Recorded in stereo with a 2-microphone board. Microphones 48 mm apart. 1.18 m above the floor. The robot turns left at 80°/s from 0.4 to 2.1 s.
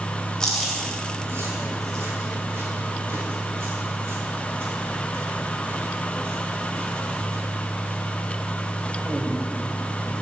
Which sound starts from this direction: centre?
Chewing, at 0.4 s.